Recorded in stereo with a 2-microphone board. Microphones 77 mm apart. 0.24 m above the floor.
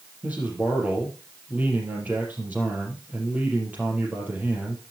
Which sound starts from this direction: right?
A man speaking, at 0.2 s.